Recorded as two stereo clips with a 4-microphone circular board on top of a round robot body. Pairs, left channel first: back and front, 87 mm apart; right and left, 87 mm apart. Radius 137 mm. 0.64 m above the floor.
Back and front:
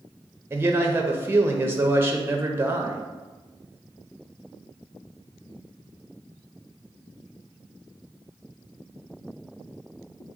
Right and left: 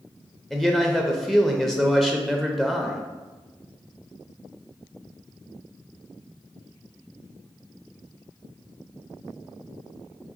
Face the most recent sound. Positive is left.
turn(degrees=-10)